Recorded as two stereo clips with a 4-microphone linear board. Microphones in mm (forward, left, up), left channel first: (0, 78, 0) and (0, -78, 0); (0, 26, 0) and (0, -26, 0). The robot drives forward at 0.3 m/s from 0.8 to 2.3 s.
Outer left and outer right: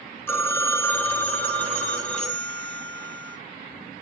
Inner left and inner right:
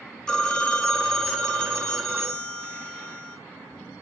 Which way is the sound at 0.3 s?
15° left (ahead or behind).